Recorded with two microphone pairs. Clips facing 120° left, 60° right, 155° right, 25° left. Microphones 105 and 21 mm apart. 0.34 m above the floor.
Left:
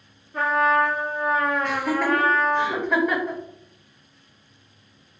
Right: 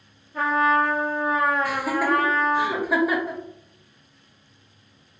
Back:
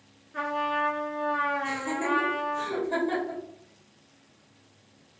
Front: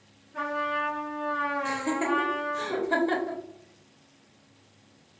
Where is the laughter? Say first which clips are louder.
Even, front 1 dB; 10° left, 0.9 m.